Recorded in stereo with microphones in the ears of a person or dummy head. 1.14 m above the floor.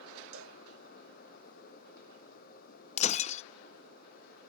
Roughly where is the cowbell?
Right.